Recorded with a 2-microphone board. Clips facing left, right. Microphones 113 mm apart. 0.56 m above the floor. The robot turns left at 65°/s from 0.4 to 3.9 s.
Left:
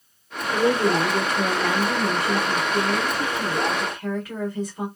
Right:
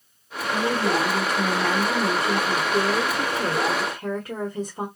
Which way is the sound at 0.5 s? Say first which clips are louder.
Left 3 dB; 75° left.